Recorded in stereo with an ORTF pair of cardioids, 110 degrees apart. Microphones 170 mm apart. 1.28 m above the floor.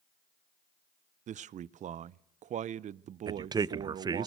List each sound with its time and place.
1.3 s a man speaking: 45° right, 0.5 m
3.3 s a man speaking: 25° right, 0.5 m